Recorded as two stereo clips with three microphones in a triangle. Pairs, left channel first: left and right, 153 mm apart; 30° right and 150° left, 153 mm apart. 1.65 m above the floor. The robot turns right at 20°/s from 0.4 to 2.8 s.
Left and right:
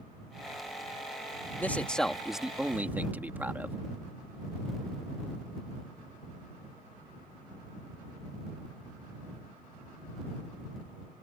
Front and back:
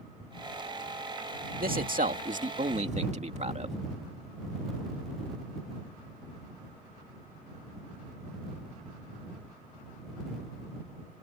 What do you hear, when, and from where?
1.6 s a man speaking: 170° left; by 3.8 s 170° right